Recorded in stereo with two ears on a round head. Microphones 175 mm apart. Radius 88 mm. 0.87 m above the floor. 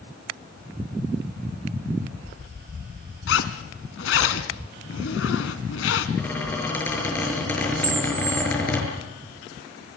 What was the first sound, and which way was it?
A zipper, 75° left (ahead or behind).